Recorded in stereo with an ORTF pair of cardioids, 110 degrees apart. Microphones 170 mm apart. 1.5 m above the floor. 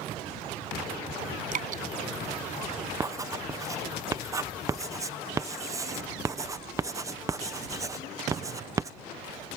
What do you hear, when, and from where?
1.5 s dripping: 55° right
3.0 s writing: 20° right